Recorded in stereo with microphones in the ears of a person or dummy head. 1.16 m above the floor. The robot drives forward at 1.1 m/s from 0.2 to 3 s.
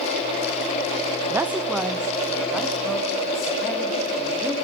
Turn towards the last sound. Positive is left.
turn(degrees=-5)  # may be behind; listen again after turning